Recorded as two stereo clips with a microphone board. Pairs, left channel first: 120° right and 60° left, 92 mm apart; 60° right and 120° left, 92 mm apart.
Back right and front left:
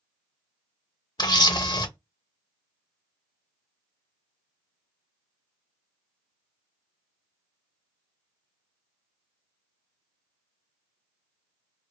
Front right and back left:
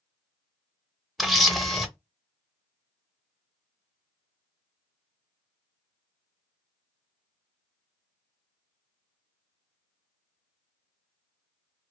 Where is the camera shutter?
150° right, 0.6 m.